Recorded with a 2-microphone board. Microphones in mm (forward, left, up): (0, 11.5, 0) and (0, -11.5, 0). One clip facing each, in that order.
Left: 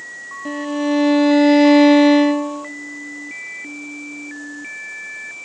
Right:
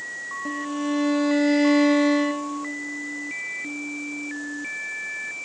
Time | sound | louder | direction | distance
0.5 | a violin | left 7 dB | 20° left (ahead or behind) | 1.1 m